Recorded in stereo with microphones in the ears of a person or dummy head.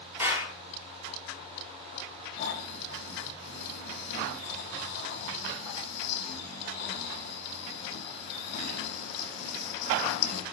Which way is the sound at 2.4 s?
65° left (ahead or behind).